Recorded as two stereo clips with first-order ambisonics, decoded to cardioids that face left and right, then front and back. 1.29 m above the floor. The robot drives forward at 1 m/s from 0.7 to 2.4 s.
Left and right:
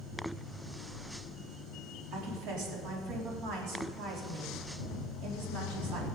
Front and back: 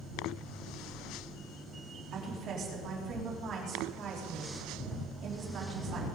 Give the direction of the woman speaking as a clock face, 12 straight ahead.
4 o'clock.